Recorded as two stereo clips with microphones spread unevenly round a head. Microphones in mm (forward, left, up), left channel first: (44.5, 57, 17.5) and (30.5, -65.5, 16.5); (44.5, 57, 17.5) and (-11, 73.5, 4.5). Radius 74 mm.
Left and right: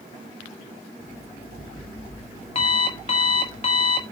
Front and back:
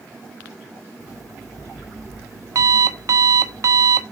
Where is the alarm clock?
140° left, 1.0 m.